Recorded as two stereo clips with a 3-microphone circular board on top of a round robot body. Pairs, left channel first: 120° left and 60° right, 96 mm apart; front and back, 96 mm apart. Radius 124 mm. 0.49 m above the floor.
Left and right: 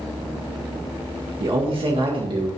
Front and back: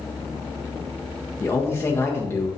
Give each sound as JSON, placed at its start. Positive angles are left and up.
{"t": 1.4, "sound": "a man speaking", "azimuth_deg": -60, "distance_m": 1.7}